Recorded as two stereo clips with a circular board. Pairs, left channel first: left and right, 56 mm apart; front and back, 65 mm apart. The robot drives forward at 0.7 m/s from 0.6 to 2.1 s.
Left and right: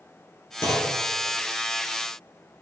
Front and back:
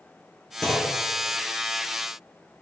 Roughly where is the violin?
I don't hear a violin.